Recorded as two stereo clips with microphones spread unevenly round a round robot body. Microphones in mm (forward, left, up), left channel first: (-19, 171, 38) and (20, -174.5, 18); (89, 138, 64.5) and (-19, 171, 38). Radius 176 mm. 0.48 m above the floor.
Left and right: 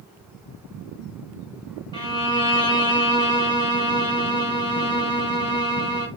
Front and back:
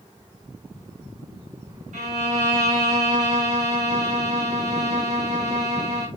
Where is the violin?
175° left, 2 m.